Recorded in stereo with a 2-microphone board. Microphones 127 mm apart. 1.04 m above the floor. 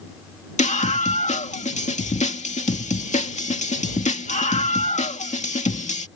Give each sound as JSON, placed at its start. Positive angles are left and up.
{"t": 0.6, "sound": "a scream", "side_deg": 70}